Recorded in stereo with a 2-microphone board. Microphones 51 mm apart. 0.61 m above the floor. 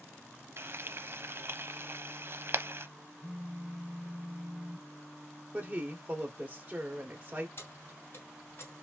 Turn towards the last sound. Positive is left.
turn(degrees=45)  # may be behind; listen again after turning